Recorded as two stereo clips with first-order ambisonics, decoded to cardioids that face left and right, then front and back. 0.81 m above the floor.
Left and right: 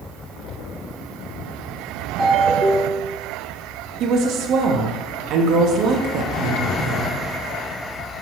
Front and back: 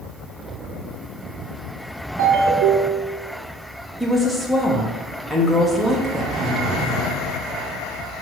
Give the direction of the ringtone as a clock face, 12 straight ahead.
5 o'clock.